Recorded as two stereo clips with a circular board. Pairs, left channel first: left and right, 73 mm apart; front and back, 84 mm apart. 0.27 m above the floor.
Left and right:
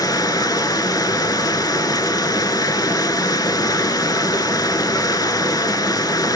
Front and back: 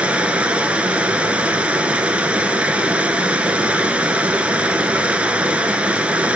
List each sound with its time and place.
0.0 s running water: 105° left, 0.9 m